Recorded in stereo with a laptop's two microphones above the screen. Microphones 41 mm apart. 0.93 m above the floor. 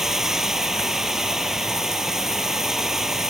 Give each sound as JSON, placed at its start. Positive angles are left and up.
{"t": 0.0, "sound": "running water", "side_deg": -15}